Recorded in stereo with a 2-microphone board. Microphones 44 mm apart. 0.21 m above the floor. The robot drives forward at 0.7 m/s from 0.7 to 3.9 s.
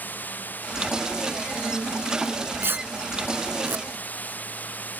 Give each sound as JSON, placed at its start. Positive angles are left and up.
{"t": 0.0, "sound": "running water", "side_deg": 40}
{"t": 2.2, "sound": "tearing paper", "side_deg": -60}